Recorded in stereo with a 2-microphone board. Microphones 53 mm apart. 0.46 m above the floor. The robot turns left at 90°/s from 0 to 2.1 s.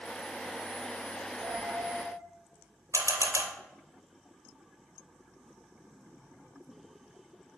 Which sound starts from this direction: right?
A camera shutter, at 2.9 s.